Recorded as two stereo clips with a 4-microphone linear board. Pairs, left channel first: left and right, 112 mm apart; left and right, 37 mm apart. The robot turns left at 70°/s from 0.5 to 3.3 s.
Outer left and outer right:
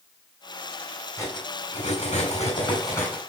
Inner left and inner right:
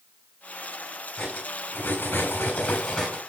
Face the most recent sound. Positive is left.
turn(degrees=5)